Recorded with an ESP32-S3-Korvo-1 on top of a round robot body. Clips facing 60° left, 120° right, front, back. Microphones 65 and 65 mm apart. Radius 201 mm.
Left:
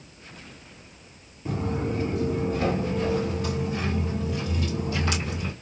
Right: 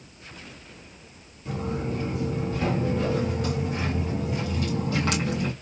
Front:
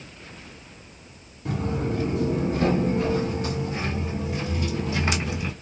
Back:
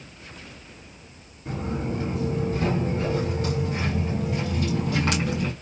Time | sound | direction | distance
1.4 | footsteps | 15° left | 1.5 m